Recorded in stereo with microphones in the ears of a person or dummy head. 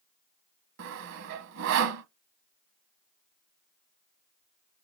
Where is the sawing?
70° right (ahead or behind), 1.1 m.